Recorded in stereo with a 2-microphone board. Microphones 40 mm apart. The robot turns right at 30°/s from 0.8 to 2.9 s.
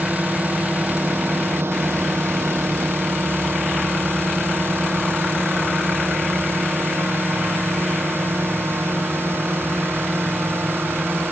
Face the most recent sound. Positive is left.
turn(degrees=-75)  # may be behind; listen again after turning